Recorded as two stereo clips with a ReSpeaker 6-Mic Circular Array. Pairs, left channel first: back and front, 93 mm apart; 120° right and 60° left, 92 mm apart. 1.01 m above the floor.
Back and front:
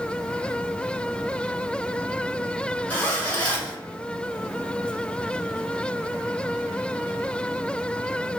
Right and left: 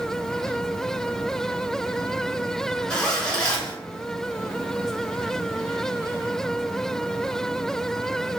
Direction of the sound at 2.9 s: 175° left.